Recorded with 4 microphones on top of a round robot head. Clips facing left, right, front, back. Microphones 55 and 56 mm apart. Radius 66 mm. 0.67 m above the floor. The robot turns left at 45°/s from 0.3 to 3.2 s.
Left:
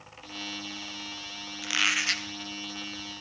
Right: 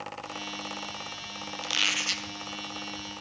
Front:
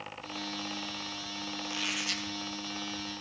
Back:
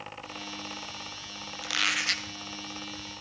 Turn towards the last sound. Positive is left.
turn(degrees=90)